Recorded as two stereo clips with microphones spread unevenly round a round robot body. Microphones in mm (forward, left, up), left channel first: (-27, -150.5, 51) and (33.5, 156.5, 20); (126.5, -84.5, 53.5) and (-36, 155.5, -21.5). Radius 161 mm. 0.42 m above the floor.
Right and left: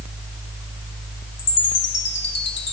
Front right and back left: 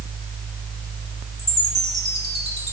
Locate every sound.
1.4 s a chime: 140° right, 2 m